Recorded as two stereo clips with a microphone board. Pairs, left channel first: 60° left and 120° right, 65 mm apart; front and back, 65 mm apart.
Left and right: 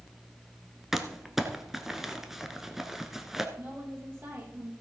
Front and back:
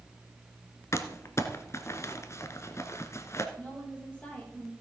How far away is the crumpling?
About 1.0 m.